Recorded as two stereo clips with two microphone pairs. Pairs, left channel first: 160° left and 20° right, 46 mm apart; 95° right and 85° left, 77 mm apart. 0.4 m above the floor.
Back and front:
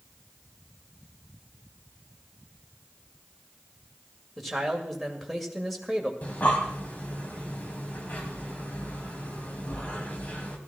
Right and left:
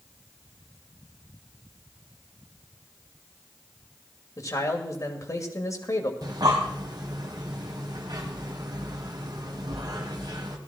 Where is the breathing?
105° left, 1.8 m.